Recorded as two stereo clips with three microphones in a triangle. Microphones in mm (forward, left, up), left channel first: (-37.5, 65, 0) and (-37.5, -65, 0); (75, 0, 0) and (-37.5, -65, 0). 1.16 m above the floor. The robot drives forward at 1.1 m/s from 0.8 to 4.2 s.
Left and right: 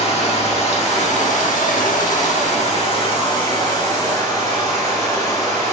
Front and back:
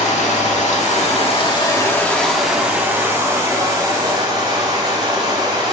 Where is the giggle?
I don't hear a giggle.